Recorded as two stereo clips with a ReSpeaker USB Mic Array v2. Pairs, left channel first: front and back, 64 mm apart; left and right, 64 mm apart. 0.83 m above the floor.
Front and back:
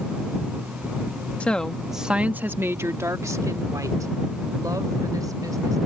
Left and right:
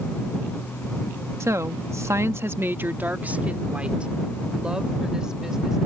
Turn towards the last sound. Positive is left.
turn(degrees=-170)